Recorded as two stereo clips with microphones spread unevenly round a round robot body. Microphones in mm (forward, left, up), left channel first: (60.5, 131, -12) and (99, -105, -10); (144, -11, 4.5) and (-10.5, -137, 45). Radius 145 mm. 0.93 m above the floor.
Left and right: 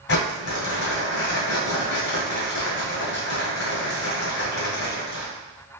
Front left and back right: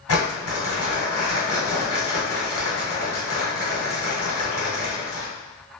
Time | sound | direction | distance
0.1 | crumpling | 65° left | 2 m